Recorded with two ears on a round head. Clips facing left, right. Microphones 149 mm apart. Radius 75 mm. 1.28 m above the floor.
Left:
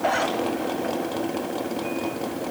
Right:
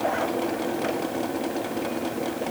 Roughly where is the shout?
No shout in this recording.